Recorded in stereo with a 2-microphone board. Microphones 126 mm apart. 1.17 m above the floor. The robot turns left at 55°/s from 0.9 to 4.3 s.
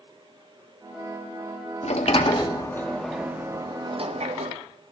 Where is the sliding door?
70° left (ahead or behind), 1.5 m; by 4.6 s 65° right (ahead or behind), 1.5 m.